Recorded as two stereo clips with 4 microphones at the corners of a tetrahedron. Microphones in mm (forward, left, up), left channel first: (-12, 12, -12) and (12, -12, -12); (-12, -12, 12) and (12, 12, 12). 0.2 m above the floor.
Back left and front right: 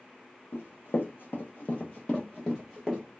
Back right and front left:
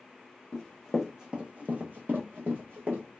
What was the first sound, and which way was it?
Running footsteps, 145° left.